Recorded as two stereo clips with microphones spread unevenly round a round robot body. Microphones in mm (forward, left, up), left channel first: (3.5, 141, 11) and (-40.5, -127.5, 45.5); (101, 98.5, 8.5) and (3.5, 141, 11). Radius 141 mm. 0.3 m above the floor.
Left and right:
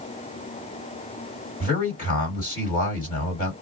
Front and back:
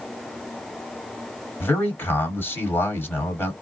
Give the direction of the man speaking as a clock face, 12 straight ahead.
11 o'clock.